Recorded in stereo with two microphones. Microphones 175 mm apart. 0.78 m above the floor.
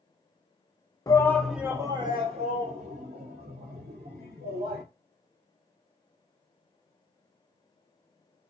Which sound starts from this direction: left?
A shout, at 1.1 s.